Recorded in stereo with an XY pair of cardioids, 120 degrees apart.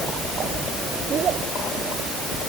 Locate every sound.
Only background noise.